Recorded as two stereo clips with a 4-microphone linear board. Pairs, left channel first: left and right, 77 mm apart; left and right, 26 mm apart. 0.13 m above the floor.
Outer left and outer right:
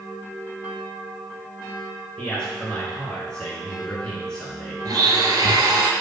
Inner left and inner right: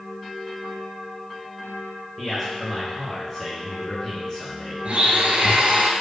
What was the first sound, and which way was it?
A man speaking, 10° left (ahead or behind).